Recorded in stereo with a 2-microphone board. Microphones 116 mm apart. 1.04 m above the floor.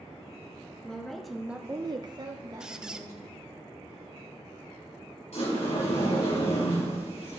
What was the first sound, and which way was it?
A woman speaking, 10° left (ahead or behind).